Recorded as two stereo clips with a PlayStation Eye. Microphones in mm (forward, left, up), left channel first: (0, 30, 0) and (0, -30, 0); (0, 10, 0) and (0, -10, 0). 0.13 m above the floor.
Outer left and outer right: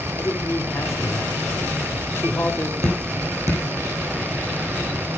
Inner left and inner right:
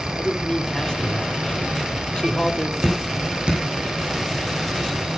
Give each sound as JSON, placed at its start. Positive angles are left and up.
{"t": 0.2, "sound": "a man speaking", "side_deg": 50, "distance_m": 3.0}
{"t": 2.8, "sound": "dripping", "side_deg": -65, "distance_m": 6.5}